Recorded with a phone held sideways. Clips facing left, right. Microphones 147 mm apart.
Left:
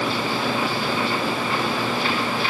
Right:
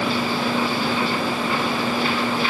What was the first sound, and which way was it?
Only background noise.